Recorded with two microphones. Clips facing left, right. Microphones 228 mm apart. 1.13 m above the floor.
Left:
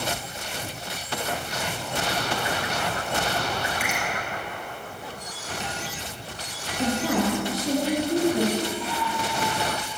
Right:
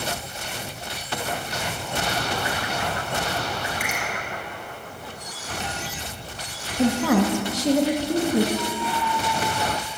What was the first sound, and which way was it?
A finger snap, 50° right (ahead or behind).